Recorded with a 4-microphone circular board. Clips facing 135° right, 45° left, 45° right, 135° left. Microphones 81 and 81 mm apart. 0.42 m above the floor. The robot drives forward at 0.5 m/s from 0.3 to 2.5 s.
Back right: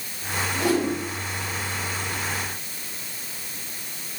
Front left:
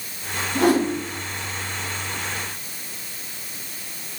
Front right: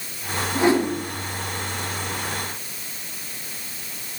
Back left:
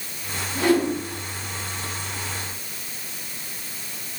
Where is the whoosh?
20° left, 4.5 m.